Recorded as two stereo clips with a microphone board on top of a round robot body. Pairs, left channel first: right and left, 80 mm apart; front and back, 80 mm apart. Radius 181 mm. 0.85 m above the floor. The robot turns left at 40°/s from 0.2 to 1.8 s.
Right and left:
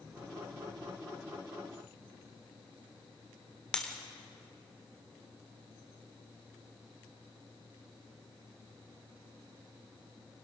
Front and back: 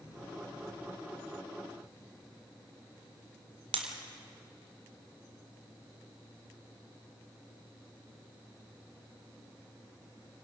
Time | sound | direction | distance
3.7 | breaking glass | 170° right | 1.5 m